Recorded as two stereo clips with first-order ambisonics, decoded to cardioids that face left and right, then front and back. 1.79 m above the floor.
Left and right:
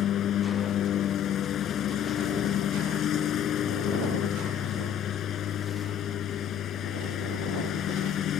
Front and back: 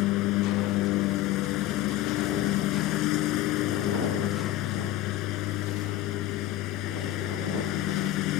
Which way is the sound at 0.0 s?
35° left.